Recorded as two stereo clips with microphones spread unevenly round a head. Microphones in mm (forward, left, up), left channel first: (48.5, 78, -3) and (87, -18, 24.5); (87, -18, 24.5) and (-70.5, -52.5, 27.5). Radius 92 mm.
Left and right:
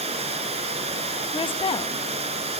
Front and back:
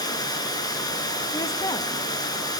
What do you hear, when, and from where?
0.0 s running water: 55° right, 5 m
1.3 s a woman speaking: 85° left, 1.0 m